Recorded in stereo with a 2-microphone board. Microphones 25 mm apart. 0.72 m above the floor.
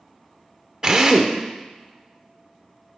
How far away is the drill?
About 0.6 m.